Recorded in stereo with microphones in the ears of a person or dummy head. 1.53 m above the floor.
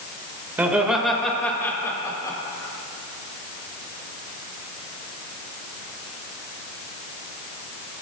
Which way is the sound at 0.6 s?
10° right (ahead or behind).